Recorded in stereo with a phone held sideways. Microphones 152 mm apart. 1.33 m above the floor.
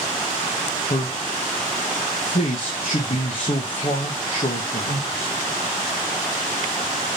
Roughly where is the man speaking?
Left.